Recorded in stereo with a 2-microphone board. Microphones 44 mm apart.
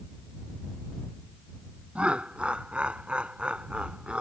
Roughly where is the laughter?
Right.